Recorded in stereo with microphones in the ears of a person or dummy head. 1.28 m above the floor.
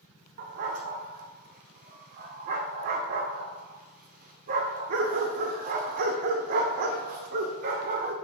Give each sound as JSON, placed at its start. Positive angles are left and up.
{"t": 0.4, "sound": "a dog barking", "side_deg": -50, "distance_m": 1.6}